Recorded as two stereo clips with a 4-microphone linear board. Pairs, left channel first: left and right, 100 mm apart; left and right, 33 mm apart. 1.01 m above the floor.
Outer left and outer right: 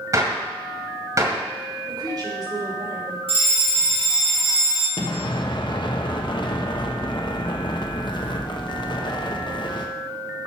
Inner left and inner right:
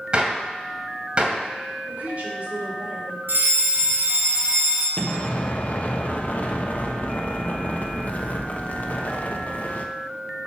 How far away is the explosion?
About 0.9 m.